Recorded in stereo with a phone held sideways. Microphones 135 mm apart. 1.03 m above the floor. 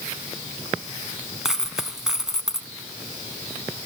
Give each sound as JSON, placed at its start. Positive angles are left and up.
{"t": 1.4, "sound": "a dropped coin", "side_deg": -5, "distance_m": 1.9}